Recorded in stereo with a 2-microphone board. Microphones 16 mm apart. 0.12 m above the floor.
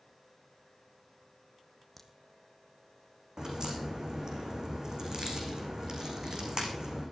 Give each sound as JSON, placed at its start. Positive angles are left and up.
{"t": 2.0, "sound": "a crack", "side_deg": 5, "distance_m": 1.9}
{"t": 3.4, "sound": "a crack", "side_deg": -40, "distance_m": 4.0}